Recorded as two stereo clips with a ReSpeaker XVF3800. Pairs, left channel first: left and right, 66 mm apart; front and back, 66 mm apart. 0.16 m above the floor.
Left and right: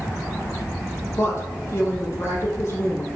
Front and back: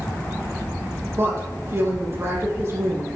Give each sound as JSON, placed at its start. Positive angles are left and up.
{"t": 1.2, "sound": "a woman speaking", "azimuth_deg": 140, "distance_m": 5.5}